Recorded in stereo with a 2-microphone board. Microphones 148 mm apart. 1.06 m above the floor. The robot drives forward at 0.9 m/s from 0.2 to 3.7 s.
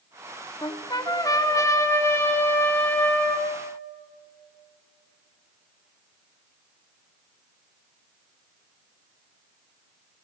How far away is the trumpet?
About 1.3 m.